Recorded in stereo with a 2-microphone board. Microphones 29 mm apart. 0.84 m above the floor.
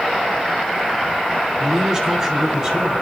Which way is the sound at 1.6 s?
15° right (ahead or behind).